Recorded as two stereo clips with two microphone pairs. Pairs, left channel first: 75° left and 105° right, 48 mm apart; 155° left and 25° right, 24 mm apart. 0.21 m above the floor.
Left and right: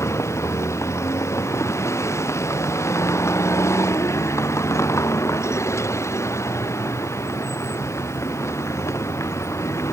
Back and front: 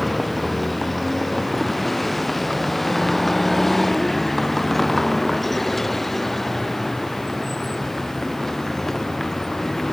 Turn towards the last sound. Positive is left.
turn(degrees=80)